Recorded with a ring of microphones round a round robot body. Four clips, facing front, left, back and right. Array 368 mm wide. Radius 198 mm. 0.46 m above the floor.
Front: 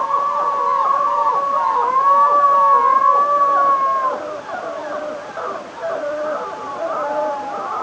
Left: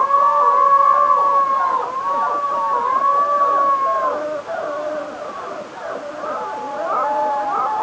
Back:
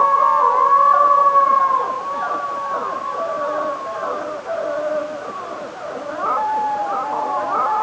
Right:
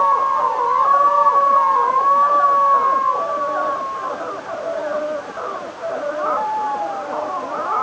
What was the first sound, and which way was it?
Only background noise.